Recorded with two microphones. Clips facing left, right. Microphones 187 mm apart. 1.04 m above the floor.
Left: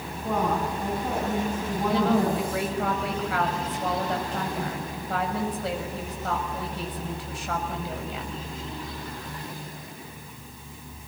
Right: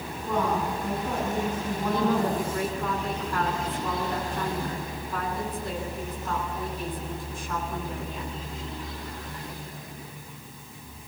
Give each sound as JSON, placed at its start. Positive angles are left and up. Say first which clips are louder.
{"t": 0.2, "sound": "a woman speaking", "louder": "left 1 dB", "side_deg": 65, "distance_m": 9.5}
{"t": 1.9, "sound": "a woman speaking", "louder": "left 2 dB", "side_deg": 85, "distance_m": 6.0}